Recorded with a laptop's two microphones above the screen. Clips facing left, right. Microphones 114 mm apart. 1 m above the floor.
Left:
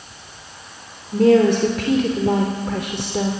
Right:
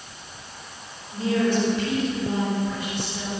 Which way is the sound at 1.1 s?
75° left (ahead or behind).